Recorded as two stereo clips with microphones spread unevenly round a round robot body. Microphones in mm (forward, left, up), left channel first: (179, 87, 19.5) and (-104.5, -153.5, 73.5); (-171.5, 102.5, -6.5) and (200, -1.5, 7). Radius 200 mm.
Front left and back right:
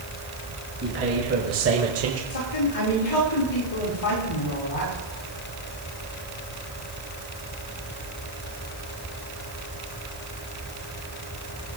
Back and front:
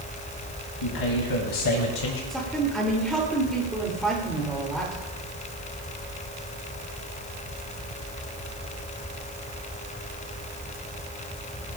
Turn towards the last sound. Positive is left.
turn(degrees=75)